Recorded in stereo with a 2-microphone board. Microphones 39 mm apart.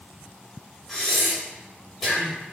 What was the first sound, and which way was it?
Breathing, 5° left (ahead or behind).